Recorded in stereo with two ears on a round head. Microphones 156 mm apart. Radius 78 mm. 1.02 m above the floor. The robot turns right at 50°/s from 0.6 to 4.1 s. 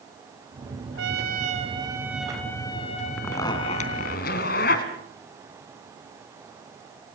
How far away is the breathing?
No breathing in this recording.